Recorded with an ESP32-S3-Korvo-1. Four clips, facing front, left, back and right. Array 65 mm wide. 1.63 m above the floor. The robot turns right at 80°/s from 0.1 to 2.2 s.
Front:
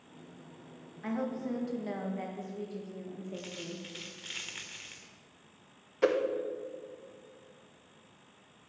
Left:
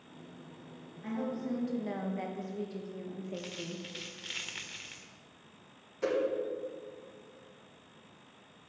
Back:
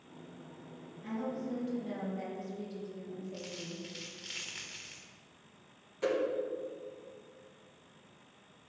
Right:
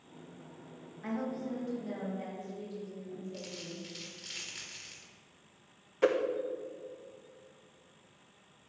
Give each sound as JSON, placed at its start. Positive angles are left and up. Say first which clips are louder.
{"t": 1.0, "sound": "a woman speaking", "louder": "left 1 dB, front 3 dB", "azimuth_deg": -30, "distance_m": 2.0}
{"t": 3.3, "sound": "a dropped coin", "louder": "left 3 dB, front 2 dB", "azimuth_deg": 65, "distance_m": 1.5}
{"t": 6.0, "sound": "a whoosh", "louder": "right 3 dB, front 5 dB", "azimuth_deg": -45, "distance_m": 1.1}